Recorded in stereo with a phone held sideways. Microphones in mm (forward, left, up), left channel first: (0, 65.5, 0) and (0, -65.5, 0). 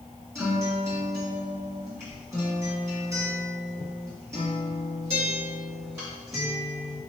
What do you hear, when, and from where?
0.3 s a guitar: 20° right (ahead or behind), 1.6 m